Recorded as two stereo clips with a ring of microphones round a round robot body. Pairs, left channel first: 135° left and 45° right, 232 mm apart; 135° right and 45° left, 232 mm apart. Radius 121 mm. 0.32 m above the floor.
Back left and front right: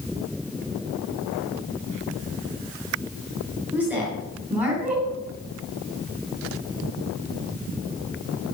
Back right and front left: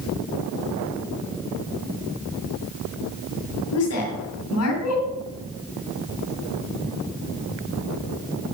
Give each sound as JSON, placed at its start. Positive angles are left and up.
{"t": 3.7, "sound": "a woman speaking", "azimuth_deg": -130, "distance_m": 3.0}